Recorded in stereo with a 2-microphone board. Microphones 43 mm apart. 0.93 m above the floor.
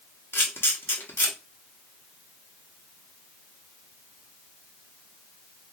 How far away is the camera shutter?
About 1.1 m.